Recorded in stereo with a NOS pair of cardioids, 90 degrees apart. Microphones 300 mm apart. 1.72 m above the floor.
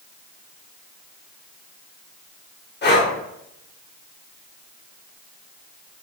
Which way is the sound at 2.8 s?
35° left.